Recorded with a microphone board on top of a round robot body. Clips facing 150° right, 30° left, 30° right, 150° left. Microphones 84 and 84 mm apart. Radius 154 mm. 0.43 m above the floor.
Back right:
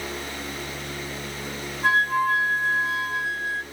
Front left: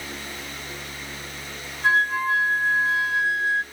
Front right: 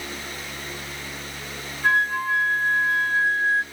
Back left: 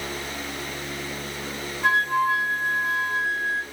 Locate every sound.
1.8 s a flute: 170° left, 4 m